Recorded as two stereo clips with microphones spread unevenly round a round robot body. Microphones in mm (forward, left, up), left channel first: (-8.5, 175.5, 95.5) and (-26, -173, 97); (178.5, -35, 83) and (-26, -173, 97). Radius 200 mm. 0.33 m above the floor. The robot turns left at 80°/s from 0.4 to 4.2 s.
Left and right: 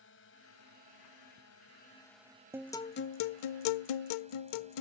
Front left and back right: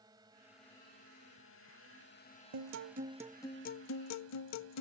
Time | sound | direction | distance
0.0 | a drone | 135° left | ?
2.5 | a guitar | 175° right | ?